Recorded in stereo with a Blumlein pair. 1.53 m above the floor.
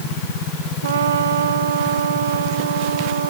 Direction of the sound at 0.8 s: 65° right.